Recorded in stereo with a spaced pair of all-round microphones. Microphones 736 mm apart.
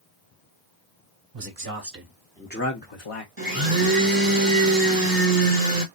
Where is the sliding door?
No sliding door in this recording.